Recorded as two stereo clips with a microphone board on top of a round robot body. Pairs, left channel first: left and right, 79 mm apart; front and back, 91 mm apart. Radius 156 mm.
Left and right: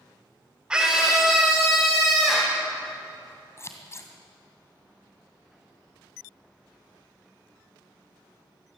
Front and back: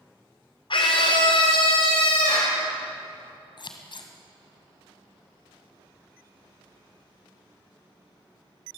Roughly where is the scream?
Ahead.